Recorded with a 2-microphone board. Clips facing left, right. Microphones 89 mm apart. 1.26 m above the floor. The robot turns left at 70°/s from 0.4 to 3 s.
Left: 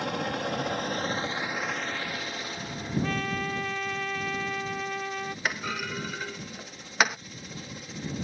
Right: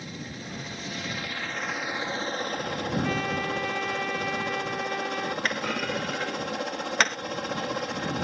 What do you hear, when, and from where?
0.0 s a helicopter: 90° left; by 8.2 s 90° right
3.0 s a trumpet: centre (ahead or behind)
5.5 s a clunk: 5° left (ahead or behind)